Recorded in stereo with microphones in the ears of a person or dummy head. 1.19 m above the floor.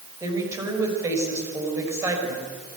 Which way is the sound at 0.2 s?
15° right (ahead or behind).